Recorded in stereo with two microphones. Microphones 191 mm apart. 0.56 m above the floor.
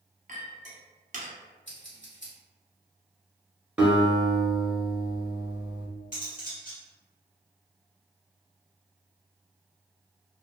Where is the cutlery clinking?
45° left (ahead or behind), 1.2 m.